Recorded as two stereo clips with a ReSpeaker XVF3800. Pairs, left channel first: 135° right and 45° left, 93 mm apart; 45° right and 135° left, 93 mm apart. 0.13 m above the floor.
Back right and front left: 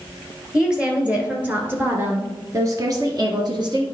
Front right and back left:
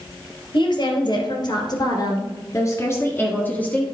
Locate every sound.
0.5 s a woman speaking: 40° right, 2 m; by 3.8 s 30° left, 1.7 m